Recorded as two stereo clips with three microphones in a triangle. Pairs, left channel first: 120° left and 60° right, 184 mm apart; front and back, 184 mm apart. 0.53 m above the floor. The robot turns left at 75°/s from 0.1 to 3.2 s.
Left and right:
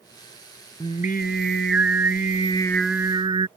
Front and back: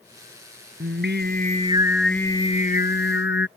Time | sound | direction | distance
0.8 | singing | 175° right | ?